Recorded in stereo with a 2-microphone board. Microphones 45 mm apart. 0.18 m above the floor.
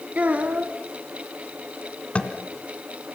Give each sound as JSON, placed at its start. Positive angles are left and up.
{"t": 0.1, "sound": "a child speaking", "side_deg": -35, "distance_m": 1.3}
{"t": 2.1, "sound": "tapping", "side_deg": 30, "distance_m": 1.7}